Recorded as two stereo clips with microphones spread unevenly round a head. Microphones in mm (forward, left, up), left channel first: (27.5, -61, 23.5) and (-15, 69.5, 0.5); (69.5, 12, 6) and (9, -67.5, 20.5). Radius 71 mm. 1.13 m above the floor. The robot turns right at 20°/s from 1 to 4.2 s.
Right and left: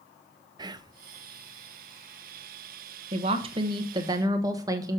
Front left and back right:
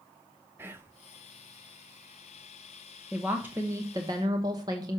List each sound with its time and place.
0.6 s whispering: 155° left, 0.6 m
3.1 s a woman speaking: 145° left, 1.1 m; by 5.0 s 170° left, 1.1 m